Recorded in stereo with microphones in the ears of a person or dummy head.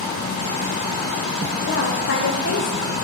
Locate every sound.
1.7 s a woman speaking: 55° left (ahead or behind), 1.0 m